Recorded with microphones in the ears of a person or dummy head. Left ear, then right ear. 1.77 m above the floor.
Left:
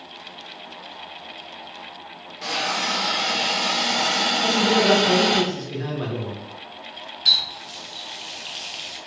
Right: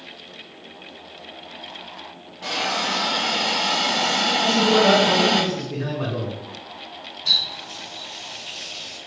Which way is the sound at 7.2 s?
25° left (ahead or behind).